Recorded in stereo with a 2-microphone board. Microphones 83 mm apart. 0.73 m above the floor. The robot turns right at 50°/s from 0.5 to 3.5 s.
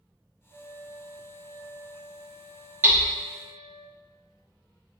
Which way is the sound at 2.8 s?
25° right (ahead or behind).